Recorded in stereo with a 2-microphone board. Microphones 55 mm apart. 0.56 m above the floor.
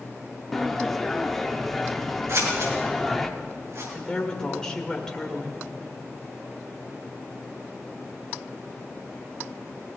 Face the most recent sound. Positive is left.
turn(degrees=15)  # may be behind; listen again after turning